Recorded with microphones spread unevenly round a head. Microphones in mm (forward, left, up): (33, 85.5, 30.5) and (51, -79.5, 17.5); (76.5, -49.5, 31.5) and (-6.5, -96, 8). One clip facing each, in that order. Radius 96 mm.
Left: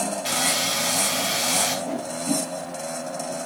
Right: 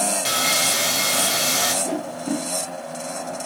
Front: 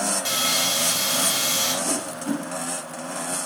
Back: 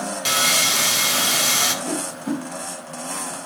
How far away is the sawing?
About 1.6 m.